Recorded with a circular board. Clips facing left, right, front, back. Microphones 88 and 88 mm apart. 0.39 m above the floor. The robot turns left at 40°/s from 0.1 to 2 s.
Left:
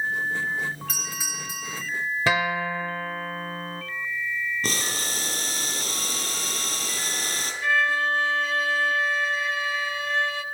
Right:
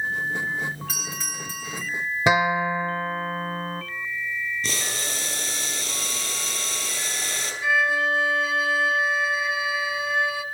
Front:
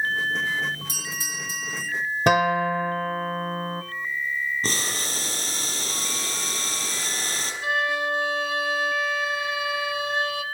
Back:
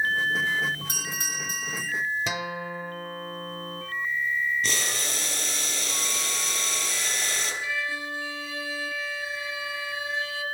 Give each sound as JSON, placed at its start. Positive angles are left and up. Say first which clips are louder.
{"t": 0.9, "sound": "a doorbell", "louder": "right 1 dB, even", "azimuth_deg": -175, "distance_m": 3.0}
{"t": 2.3, "sound": "a guitar", "louder": "right 5 dB, front 12 dB", "azimuth_deg": -20, "distance_m": 0.7}
{"t": 4.6, "sound": "boiling", "louder": "left 1 dB, front 1 dB", "azimuth_deg": 55, "distance_m": 3.5}
{"t": 7.6, "sound": "a violin", "louder": "right 1 dB, front 12 dB", "azimuth_deg": -10, "distance_m": 0.9}